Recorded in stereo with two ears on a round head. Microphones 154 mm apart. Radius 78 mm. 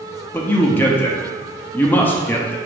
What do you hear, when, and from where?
0.3 s a man speaking: 10° left (ahead or behind), 0.5 m